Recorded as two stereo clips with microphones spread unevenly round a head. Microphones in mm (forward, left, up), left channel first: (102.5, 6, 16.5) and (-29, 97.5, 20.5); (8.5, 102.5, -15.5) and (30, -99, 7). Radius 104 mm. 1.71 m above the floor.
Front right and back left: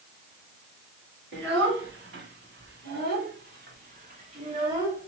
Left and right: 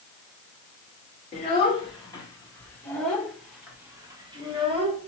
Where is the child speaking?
160° left, 2 m; by 5.1 s 140° right, 1.6 m.